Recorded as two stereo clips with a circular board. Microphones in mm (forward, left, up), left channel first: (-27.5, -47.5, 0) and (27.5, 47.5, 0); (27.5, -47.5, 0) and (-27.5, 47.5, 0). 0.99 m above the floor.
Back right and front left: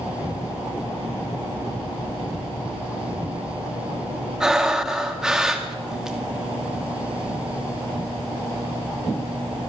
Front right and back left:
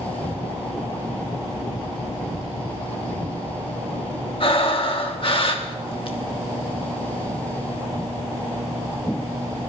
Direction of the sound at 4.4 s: 25° right.